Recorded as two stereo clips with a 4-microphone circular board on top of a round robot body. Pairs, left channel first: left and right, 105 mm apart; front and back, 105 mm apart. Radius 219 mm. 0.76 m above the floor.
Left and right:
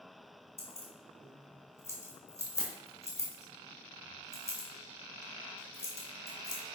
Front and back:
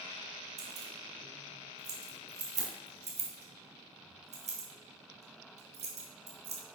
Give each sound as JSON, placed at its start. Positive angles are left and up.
{"t": 0.6, "sound": "keys jangling", "azimuth_deg": 155, "distance_m": 1.7}